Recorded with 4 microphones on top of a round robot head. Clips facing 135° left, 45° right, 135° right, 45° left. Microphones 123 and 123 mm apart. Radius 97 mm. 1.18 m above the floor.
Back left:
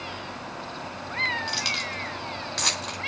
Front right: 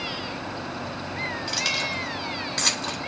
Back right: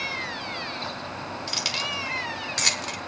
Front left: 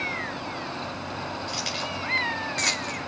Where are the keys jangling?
135° right, 3 m.